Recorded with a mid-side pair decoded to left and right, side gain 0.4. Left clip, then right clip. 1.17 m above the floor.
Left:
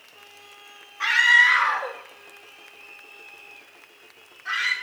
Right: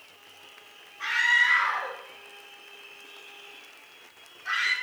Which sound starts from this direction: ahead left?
A scream, at 1.0 s.